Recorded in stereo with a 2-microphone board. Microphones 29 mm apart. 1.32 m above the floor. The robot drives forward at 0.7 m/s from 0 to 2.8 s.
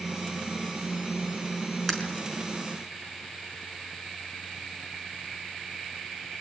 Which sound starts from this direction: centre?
Breaking glass, at 1.9 s.